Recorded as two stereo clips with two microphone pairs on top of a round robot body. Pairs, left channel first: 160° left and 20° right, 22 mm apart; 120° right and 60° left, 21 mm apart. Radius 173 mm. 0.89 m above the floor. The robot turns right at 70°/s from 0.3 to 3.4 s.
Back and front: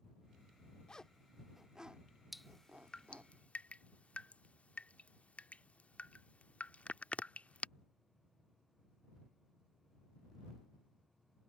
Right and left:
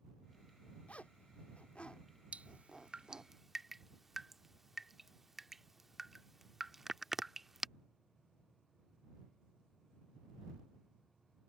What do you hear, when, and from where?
0.9 s a zipper: 145° right; by 3.3 s 25° left
2.3 s dripping: 65° left; by 7.7 s 140° left